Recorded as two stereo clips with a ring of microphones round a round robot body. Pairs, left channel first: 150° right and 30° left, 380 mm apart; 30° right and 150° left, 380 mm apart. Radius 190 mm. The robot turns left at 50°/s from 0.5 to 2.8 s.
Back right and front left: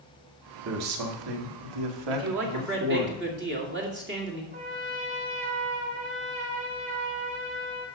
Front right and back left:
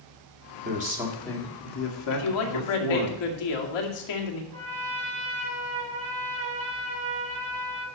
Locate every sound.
0.7 s a man speaking: 85° left, 1.9 m; by 3.1 s 20° right, 1.9 m
2.1 s a man speaking: 5° left, 2.5 m; by 4.4 s 30° right, 2.5 m
4.5 s a trumpet: 95° left, 4.5 m